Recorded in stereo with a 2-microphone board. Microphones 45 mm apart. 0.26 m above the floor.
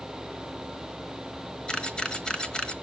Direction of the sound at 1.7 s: 20° left (ahead or behind).